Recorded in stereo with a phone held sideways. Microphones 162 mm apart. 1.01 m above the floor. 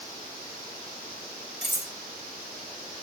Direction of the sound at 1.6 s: 85° right.